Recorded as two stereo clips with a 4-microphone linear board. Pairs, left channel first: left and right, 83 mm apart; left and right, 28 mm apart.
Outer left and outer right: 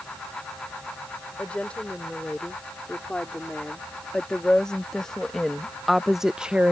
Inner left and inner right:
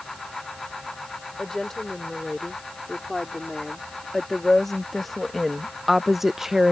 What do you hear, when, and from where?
1.4 s a woman speaking: 15° left (ahead or behind); by 6.7 s 20° right (ahead or behind)